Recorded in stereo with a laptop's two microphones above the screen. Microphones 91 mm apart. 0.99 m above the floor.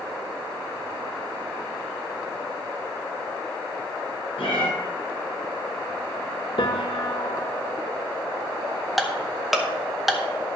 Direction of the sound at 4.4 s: 75° left (ahead or behind).